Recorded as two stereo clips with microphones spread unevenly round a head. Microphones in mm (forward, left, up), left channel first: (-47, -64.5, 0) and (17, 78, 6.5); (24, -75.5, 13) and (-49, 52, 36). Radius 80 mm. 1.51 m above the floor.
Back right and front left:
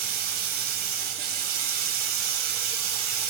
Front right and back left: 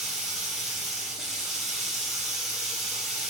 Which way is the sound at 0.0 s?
35° left.